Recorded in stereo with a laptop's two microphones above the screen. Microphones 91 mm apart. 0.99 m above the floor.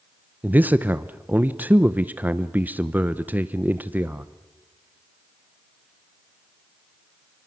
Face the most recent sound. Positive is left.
turn(degrees=-20)  # may be behind; listen again after turning